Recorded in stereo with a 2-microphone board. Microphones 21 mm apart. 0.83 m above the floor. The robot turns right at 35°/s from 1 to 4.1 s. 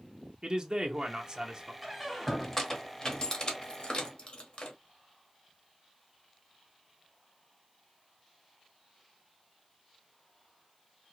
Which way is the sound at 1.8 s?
10° right (ahead or behind).